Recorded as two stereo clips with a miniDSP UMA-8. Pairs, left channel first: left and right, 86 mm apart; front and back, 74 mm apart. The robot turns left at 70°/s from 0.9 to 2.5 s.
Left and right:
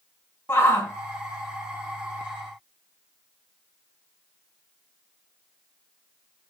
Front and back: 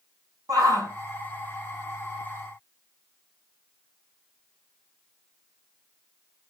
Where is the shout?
150° left, 3 m.